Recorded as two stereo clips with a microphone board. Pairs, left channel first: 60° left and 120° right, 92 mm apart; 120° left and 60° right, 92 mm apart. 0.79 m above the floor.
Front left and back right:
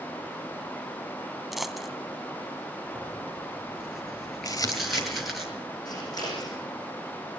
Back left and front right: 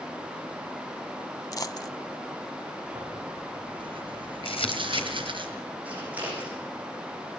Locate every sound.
1.5 s a dropped coin: 155° left, 0.9 m
3.0 s tearing paper: 30° right, 7 m
4.5 s crumpling: 110° left, 3 m
5.8 s scissors: 15° left, 9.5 m